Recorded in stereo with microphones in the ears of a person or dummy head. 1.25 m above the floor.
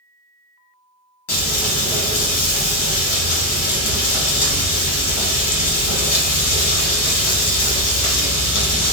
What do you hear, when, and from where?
1.3 s frying: 75° left (ahead or behind), 1.4 m